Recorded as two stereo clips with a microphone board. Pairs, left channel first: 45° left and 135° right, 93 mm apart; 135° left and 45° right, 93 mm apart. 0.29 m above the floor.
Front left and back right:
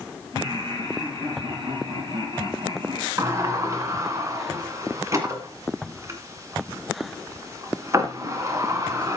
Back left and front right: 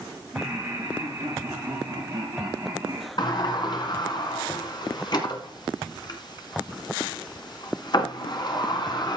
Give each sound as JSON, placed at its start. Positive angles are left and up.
{"t": 0.3, "sound": "laughter", "azimuth_deg": -105, "distance_m": 5.5}
{"t": 3.2, "sound": "a sliding door", "azimuth_deg": 170, "distance_m": 2.0}